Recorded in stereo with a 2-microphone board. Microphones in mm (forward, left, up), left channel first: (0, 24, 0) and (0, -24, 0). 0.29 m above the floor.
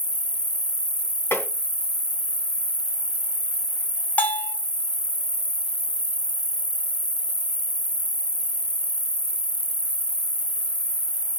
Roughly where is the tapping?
Left.